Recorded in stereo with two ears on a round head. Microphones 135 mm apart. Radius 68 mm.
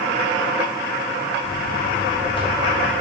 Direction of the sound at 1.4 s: 35° left (ahead or behind).